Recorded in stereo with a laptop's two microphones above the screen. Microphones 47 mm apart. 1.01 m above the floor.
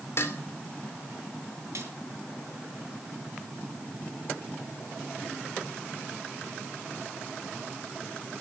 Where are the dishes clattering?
50° left (ahead or behind), 2.5 m.